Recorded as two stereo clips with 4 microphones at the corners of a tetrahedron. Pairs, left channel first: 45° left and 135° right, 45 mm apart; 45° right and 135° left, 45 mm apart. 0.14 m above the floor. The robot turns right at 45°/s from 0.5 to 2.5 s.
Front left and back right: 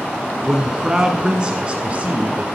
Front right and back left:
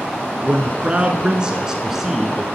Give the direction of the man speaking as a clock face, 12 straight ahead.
7 o'clock.